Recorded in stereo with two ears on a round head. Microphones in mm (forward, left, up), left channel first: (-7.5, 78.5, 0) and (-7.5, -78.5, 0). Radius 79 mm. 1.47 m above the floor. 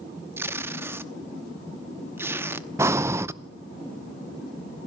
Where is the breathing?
15° right (ahead or behind), 0.6 m.